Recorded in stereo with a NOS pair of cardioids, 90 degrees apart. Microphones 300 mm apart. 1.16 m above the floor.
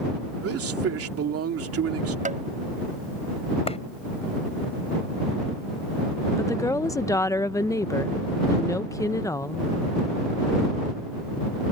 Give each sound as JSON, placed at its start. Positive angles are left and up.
{"t": 0.4, "sound": "a man speaking", "azimuth_deg": -50}
{"t": 2.2, "sound": "tapping", "azimuth_deg": -25}
{"t": 3.7, "sound": "a clap", "azimuth_deg": 20}
{"t": 6.4, "sound": "a woman speaking", "azimuth_deg": 10}